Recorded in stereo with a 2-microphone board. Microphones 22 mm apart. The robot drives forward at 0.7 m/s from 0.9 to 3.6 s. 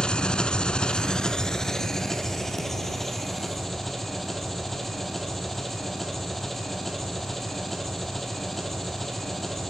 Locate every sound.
0.0 s an engine running: 45° left (ahead or behind), 0.8 m; by 9.7 s 15° left (ahead or behind), 2.5 m